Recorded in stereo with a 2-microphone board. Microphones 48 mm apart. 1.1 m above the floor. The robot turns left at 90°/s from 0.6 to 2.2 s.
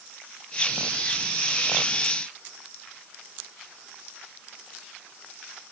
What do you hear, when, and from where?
Only background noise.